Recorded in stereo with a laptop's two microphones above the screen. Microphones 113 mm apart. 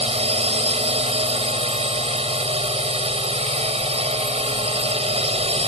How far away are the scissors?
I don't hear scissors.